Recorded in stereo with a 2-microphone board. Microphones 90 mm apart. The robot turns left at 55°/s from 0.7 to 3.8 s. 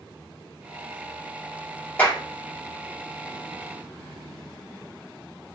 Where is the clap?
20° left (ahead or behind), 1.2 m; by 2.2 s 10° left (ahead or behind), 1.2 m.